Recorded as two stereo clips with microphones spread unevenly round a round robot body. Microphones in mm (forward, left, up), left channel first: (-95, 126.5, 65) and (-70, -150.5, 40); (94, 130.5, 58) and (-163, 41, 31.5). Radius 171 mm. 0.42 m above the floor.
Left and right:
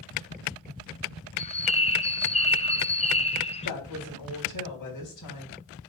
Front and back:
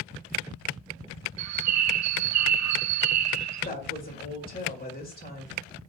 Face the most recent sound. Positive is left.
turn(degrees=75)